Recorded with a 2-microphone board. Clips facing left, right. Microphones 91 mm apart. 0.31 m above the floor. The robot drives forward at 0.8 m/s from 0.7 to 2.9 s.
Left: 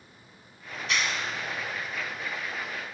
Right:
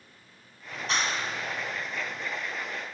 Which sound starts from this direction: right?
A clap, at 0.7 s.